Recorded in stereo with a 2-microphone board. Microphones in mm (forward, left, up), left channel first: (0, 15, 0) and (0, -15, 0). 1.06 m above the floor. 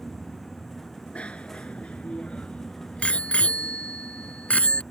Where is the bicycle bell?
40° left (ahead or behind); by 4.8 s 45° left (ahead or behind).